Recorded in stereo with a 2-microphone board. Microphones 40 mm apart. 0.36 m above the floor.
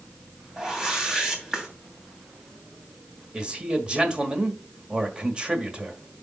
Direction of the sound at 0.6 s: 10° right (ahead or behind).